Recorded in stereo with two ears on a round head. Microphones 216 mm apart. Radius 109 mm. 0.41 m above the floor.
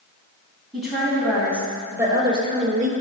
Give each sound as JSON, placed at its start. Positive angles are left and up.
{"t": 0.7, "sound": "a woman speaking", "side_deg": 0, "distance_m": 3.0}